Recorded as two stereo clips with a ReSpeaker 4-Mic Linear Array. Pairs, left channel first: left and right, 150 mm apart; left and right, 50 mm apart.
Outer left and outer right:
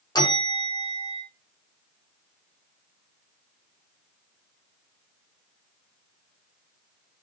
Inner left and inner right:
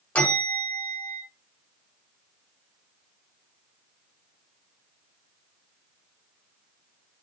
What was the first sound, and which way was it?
A bell, 25° left (ahead or behind).